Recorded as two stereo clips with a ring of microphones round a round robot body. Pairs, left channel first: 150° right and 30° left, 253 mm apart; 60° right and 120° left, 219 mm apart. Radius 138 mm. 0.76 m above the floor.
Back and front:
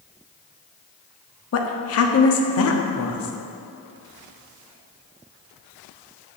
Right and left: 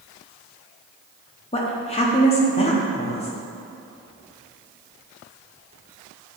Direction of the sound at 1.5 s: 125° right.